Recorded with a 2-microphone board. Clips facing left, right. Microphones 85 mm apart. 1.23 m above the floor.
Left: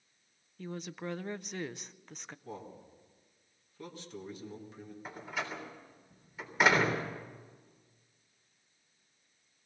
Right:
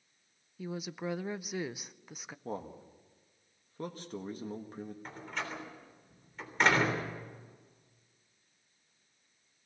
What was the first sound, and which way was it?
A woman speaking, 5° right (ahead or behind).